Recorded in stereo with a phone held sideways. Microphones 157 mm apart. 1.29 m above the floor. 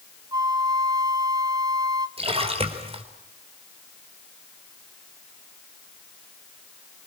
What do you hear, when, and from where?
0.3 s a flute: 25° right (ahead or behind), 1.1 m
2.2 s a splash: 40° right (ahead or behind), 3.5 m